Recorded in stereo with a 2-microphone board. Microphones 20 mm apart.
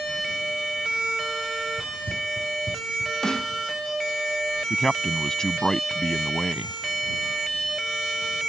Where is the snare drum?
30° left (ahead or behind).